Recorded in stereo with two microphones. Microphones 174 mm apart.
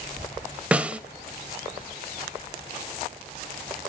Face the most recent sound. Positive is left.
turn(degrees=-5)  # may be behind; listen again after turning